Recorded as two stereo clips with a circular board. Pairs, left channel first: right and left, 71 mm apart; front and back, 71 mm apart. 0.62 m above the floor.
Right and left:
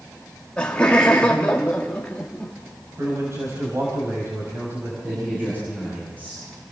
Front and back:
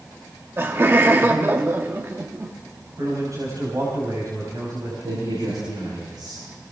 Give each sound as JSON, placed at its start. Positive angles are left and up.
{"t": 0.6, "sound": "laughter", "azimuth_deg": -155, "distance_m": 1.1}
{"t": 3.0, "sound": "a man speaking", "azimuth_deg": 140, "distance_m": 4.0}
{"t": 5.0, "sound": "a man speaking", "azimuth_deg": 155, "distance_m": 9.5}